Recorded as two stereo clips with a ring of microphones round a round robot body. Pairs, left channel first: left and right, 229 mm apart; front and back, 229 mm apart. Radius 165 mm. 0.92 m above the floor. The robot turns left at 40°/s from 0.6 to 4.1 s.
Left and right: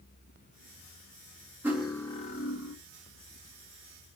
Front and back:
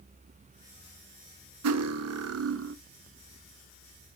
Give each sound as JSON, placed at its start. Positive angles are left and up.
{"t": 1.6, "sound": "cutlery clinking", "azimuth_deg": -175, "distance_m": 0.6}